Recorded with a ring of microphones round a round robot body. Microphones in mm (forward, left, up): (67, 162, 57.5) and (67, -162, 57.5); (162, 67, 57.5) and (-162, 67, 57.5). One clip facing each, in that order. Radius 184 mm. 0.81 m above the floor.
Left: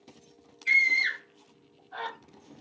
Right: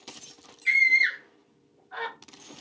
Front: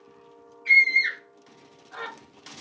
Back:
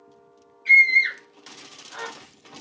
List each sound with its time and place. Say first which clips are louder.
0.7 s a scream: right 1 dB, back 3 dB; 90° right, 3 m